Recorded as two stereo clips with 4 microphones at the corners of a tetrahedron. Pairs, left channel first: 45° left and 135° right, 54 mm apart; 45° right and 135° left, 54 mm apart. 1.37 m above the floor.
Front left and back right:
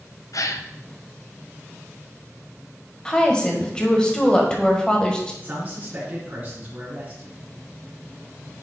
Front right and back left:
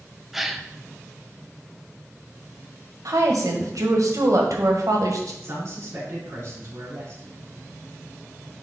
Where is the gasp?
50° left, 0.5 m.